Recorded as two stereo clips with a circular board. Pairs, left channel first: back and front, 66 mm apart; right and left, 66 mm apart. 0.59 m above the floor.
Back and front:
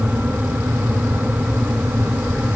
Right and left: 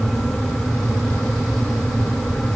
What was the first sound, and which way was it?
Only background noise.